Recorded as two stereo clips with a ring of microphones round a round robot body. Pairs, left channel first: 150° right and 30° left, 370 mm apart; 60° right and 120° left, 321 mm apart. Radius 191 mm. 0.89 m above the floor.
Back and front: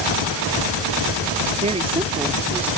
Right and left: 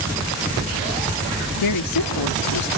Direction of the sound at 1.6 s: 40° right.